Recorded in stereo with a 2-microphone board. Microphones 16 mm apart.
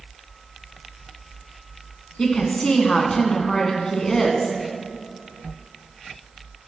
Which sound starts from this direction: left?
A woman speaking, at 2.2 s.